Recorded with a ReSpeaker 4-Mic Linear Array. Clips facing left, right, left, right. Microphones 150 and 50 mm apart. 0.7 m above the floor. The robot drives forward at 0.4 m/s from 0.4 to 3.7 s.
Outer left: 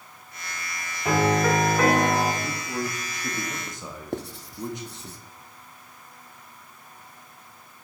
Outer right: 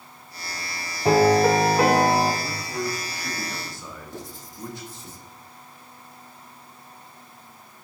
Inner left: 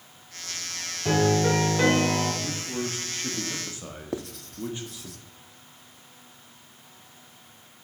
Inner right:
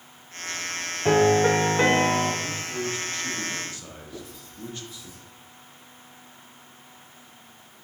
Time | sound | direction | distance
1.1 | a piano | 30° right (ahead or behind) | 1.2 m
2.4 | a man speaking | 15° left (ahead or behind) | 1.3 m
4.1 | writing | 70° left (ahead or behind) | 0.7 m